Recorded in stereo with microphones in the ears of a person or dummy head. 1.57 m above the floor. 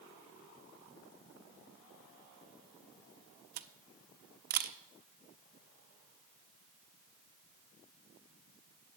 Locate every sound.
3.6 s a camera shutter: 50° right (ahead or behind), 0.6 m